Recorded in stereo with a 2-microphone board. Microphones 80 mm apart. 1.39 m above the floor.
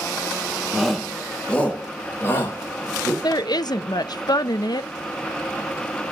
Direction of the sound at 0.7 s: 5° right (ahead or behind).